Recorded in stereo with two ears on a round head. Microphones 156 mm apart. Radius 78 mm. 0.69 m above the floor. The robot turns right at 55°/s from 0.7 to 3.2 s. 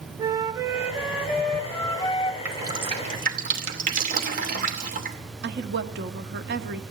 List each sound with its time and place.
0.2 s a flute: 30° right, 0.6 m; by 2.4 s 60° left, 0.6 m
2.5 s dripping: 10° right (ahead or behind), 2.5 m; by 5.2 s 45° right (ahead or behind), 2.5 m
5.4 s a woman speaking: 55° right (ahead or behind), 1.2 m